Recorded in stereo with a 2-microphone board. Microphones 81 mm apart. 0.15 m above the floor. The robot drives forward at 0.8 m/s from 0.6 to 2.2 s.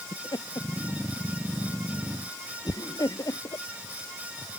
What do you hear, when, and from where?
0.1 s laughter: 65° left (ahead or behind); by 3.6 s 55° left (ahead or behind)